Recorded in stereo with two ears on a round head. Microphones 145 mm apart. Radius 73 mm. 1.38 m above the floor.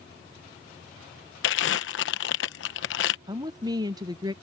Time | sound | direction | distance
1.4 | crumpling | 80° left | ?
3.3 | a woman speaking | 25° right (ahead or behind) | ?